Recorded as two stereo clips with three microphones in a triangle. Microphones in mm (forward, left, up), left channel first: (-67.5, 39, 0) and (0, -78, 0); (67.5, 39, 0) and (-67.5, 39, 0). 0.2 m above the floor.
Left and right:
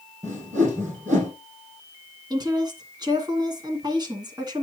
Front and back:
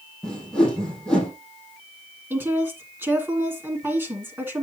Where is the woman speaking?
110° right, 2 m.